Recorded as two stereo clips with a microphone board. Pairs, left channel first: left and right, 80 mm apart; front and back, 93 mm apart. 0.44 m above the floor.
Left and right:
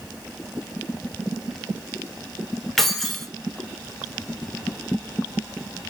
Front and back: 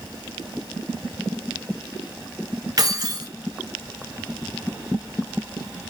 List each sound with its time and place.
2.8 s keys jangling: 175° left, 0.8 m